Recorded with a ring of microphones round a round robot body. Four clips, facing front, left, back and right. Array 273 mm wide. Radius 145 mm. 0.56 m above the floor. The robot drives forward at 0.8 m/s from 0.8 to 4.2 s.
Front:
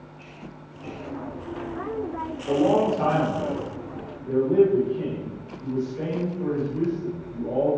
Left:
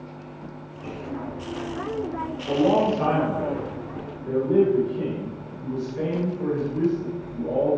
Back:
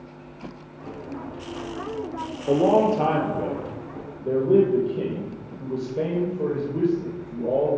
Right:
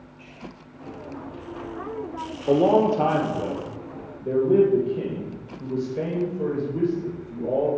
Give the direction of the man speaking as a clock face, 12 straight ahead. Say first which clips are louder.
Right 2 dB, back 2 dB; 4 o'clock.